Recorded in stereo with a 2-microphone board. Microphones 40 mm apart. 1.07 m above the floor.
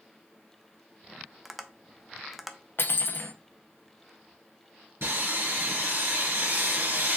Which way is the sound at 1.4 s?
Centre (ahead or behind).